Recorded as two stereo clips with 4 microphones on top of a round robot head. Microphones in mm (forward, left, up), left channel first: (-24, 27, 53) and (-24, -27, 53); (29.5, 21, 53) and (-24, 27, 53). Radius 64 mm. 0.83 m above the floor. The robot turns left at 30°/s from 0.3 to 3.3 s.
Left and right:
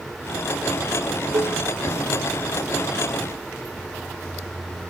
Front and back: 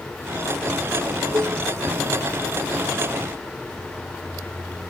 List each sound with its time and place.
1.3 s dishes clattering: 125° right; by 1.6 s 135° right